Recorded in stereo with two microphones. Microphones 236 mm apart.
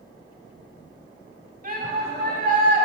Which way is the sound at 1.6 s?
35° right (ahead or behind).